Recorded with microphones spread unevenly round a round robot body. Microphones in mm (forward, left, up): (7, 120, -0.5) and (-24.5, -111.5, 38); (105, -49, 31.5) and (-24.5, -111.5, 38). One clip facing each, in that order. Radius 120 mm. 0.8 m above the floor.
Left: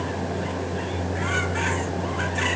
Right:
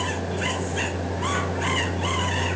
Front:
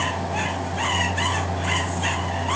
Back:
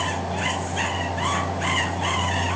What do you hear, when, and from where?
Only background noise.